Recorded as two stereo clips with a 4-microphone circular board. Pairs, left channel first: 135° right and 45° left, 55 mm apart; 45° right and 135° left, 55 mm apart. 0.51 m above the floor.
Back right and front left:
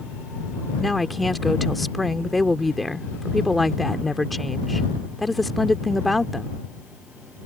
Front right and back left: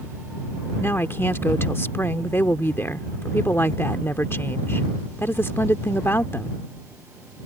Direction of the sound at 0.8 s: 45° right.